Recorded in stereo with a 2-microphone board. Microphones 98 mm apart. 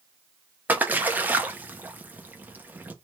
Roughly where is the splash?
Centre.